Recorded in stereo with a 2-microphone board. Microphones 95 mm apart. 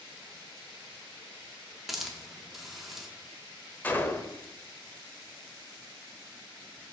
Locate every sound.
1.9 s a hiss: centre (ahead or behind), 1.0 m
3.8 s a gunshot: 20° left (ahead or behind), 0.7 m